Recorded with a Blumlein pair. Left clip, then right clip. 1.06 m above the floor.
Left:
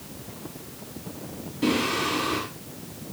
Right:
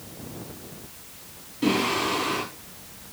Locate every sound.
1.6 s singing: straight ahead, 10 m